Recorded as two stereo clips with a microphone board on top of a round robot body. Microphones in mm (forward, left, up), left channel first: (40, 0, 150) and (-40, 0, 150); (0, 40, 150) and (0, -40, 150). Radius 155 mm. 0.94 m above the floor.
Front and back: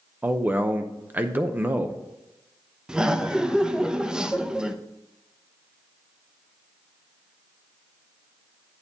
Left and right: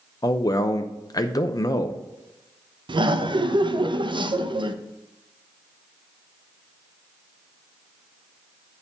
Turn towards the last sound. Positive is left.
turn(degrees=-100)